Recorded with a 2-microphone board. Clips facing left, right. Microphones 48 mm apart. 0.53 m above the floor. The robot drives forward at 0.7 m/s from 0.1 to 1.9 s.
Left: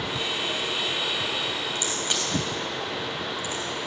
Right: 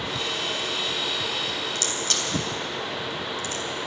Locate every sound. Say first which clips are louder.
1.8 s a crack: even; 20° left (ahead or behind), 4 m